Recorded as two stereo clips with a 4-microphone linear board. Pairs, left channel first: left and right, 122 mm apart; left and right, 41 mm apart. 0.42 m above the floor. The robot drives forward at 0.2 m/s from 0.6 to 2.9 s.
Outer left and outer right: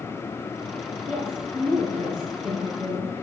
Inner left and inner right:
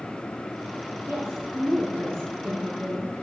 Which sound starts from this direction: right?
A woman speaking, at 1.1 s.